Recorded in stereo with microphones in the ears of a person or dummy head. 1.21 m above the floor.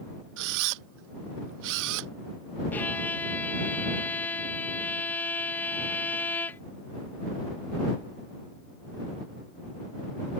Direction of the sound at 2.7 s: 15° left (ahead or behind).